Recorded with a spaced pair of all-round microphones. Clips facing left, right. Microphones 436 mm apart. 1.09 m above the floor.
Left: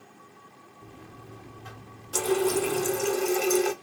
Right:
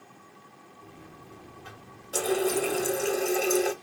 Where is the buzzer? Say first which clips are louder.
Left 2 dB; 55° left (ahead or behind), 1.7 m.